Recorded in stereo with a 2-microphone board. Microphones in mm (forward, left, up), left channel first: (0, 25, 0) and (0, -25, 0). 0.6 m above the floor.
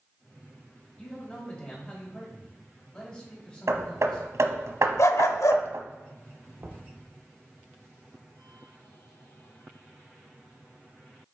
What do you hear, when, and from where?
1.0 s a man speaking: 25° left (ahead or behind), 4 m
3.7 s hammering: 75° right (ahead or behind), 1.1 m
5.0 s a dog barking: 80° left, 0.7 m
6.6 s knocking: 55° right (ahead or behind), 1.5 m